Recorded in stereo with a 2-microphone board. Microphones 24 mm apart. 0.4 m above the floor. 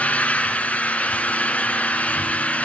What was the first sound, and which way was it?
An engine running, 80° left.